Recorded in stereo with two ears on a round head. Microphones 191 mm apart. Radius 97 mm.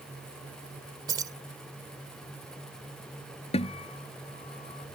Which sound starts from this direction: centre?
Keys jangling, at 1.1 s.